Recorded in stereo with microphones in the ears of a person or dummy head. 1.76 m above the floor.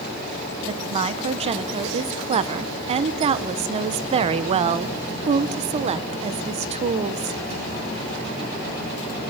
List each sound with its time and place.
0.7 s a woman speaking: 30° right (ahead or behind), 1.1 m